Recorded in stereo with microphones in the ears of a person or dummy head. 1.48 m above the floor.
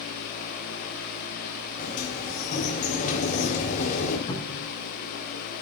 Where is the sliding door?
40° left (ahead or behind), 4 m.